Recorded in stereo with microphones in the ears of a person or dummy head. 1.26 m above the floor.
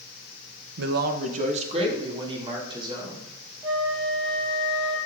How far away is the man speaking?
About 0.8 m.